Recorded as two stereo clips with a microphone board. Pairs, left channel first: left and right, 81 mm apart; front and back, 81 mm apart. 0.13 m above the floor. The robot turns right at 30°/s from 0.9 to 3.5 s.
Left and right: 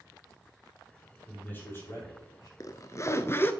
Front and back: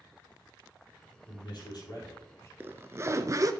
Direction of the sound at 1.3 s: 15° left.